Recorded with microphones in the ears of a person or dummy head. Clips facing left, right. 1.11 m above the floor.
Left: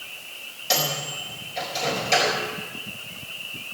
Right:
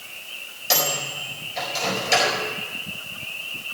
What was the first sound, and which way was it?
A microwave, 5° right (ahead or behind).